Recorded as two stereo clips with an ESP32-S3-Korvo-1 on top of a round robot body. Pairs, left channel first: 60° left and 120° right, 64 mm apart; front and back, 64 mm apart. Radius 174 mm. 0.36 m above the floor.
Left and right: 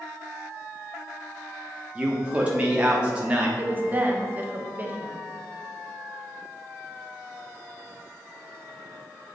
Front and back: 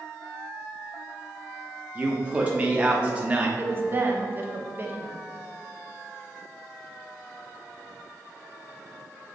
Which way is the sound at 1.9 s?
155° right.